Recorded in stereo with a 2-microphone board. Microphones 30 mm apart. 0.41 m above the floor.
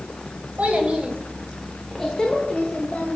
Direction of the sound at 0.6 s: 55° right (ahead or behind).